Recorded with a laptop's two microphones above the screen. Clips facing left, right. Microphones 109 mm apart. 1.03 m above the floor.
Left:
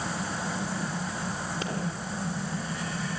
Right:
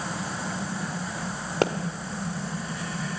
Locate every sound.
1.6 s a pop: 70° right (ahead or behind), 1.5 m